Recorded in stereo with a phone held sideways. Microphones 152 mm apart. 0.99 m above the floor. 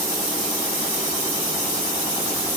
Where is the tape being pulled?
No tape being pulled in this recording.